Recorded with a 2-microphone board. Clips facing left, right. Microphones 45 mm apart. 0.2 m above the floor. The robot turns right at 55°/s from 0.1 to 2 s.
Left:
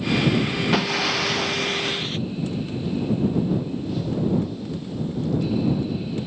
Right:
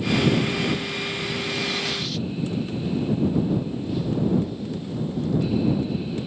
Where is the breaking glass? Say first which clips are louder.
Left 6 dB; 80° left; by 2.2 s 150° left.